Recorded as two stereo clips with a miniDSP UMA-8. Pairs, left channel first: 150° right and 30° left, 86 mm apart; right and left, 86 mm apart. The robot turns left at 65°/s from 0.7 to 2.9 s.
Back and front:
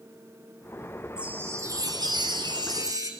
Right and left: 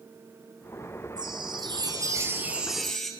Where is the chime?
105° left, 2.5 m; by 3.1 s 5° right, 2.5 m.